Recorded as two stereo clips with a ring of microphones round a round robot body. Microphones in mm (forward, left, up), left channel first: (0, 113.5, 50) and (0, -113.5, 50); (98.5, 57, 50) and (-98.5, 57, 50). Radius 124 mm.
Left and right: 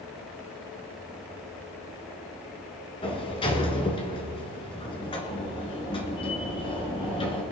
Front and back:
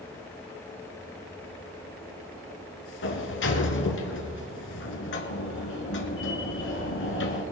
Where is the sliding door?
20° left, 1.9 m.